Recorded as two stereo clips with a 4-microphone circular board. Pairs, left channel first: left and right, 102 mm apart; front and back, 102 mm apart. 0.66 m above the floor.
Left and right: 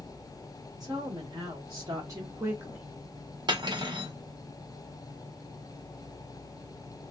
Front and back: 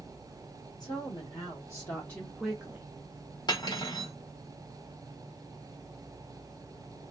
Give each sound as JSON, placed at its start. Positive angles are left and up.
{"t": 0.8, "sound": "a woman speaking", "azimuth_deg": -40, "distance_m": 1.7}
{"t": 3.5, "sound": "cutlery clinking", "azimuth_deg": -45, "distance_m": 0.9}